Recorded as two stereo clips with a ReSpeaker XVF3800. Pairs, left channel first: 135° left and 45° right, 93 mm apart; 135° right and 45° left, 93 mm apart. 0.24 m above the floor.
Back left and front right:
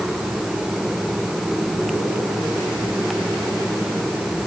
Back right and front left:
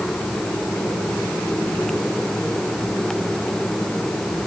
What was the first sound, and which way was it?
Only background noise.